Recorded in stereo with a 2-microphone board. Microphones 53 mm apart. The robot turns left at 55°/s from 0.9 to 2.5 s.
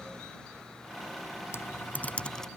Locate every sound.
1.5 s typing on a keyboard: 50° left (ahead or behind); by 2.5 s 10° left (ahead or behind)